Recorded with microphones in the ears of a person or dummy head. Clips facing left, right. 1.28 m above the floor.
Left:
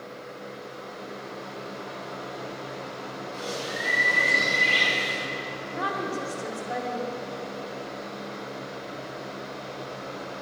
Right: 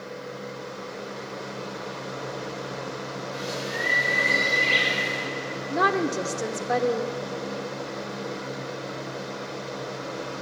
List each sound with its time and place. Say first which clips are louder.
0.0 s a fan: right 4 dB; 60° right (ahead or behind), 1.2 m
3.3 s a bird: right 1 dB; 25° right (ahead or behind), 3 m
5.7 s a woman speaking: right 7 dB; 75° right (ahead or behind), 0.8 m